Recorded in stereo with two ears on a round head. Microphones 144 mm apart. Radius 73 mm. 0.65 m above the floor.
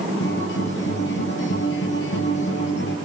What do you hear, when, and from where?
0.2 s a guitar: 90° left, 5.5 m